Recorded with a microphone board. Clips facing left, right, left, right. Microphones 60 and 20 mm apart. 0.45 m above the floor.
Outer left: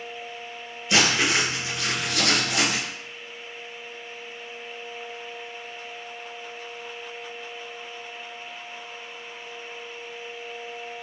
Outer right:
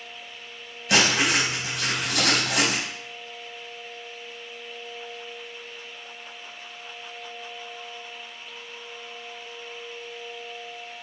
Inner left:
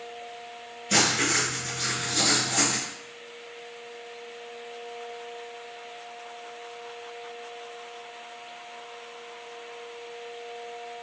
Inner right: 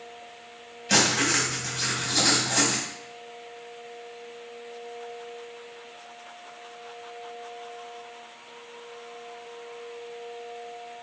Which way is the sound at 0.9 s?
85° right.